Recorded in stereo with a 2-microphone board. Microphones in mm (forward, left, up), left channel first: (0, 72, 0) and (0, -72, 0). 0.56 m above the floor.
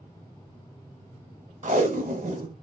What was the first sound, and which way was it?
Tape being pulled, 60° right (ahead or behind).